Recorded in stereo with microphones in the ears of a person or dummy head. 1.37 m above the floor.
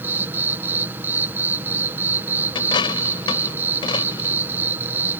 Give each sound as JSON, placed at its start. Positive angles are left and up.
{"t": 0.0, "sound": "an insect", "side_deg": -10}
{"t": 2.5, "sound": "a dropped coin", "side_deg": 25}